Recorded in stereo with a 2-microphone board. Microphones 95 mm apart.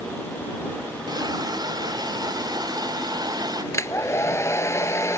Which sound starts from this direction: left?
A hair dryer, at 3.7 s.